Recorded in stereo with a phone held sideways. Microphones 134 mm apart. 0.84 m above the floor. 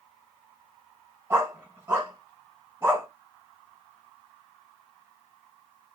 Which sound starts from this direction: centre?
A dog barking, at 1.3 s.